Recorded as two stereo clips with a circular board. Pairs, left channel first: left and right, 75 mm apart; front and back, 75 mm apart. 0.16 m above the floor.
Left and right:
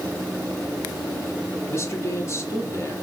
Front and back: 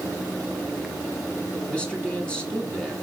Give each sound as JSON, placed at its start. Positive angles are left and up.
{"t": 1.7, "sound": "a man speaking", "azimuth_deg": 70, "distance_m": 1.9}